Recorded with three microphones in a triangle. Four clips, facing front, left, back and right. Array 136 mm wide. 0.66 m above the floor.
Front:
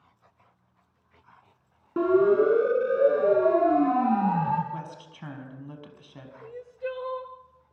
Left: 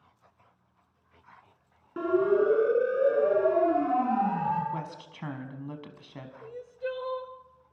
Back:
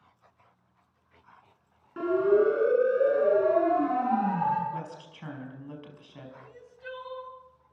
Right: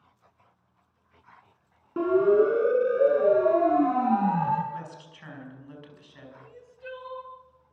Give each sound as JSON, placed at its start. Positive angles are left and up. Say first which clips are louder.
{"t": 2.0, "sound": "a siren", "louder": "right 4 dB, front 3 dB", "azimuth_deg": -25, "distance_m": 8.0}
{"t": 4.7, "sound": "a woman speaking", "louder": "left 2 dB, even", "azimuth_deg": 85, "distance_m": 5.0}
{"t": 6.4, "sound": "crying", "louder": "left 12 dB, front 10 dB", "azimuth_deg": 40, "distance_m": 1.8}